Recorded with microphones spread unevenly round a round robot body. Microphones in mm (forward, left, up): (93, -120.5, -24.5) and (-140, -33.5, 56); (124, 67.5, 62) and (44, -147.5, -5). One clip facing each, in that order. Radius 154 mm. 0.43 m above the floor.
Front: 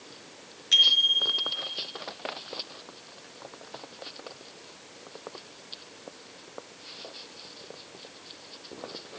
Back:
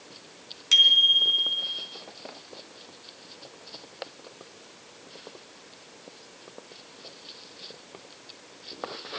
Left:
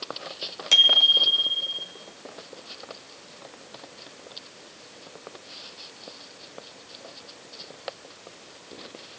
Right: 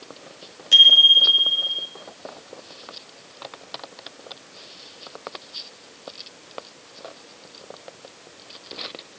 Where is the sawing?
No sawing in this recording.